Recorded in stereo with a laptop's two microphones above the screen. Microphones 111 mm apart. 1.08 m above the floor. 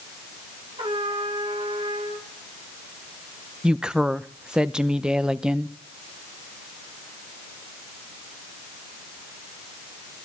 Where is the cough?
I don't hear a cough.